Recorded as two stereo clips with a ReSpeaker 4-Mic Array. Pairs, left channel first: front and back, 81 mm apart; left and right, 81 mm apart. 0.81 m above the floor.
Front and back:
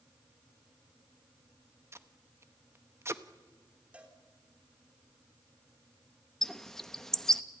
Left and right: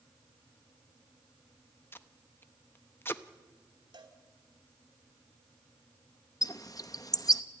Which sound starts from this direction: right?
A cowbell, at 3.9 s.